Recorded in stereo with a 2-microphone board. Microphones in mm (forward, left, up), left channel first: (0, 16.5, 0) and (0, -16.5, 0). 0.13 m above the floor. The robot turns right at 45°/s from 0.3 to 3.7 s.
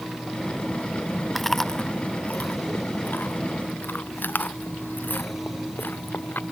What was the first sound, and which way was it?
Chewing, centre (ahead or behind).